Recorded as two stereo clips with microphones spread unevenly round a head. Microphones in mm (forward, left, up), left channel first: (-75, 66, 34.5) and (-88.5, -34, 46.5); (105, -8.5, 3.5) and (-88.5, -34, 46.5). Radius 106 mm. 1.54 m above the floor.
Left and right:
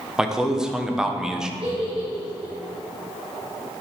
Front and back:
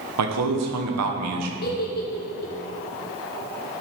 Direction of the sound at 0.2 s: 175° left.